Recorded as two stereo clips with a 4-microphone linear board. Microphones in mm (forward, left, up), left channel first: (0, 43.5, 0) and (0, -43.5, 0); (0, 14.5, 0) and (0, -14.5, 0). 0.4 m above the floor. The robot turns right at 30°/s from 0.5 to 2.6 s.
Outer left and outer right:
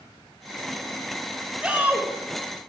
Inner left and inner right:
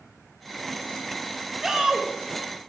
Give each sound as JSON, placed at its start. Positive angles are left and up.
{"t": 1.6, "sound": "a shout", "side_deg": -15, "distance_m": 1.8}